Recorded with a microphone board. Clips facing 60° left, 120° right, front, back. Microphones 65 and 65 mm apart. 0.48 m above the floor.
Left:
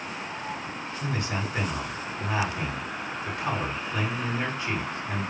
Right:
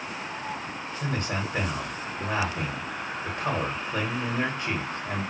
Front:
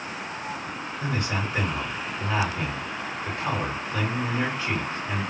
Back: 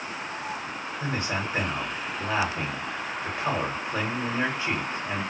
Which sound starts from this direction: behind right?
A man speaking, at 1.0 s.